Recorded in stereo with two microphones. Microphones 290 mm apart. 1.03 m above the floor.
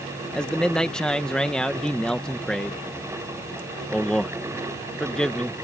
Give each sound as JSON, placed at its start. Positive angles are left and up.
{"t": 0.3, "sound": "a man speaking", "side_deg": 5}